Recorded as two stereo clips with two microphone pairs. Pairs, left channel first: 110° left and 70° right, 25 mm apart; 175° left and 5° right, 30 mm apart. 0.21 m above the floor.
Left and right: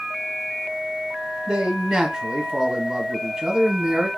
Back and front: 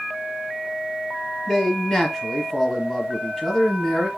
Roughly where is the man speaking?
Behind right.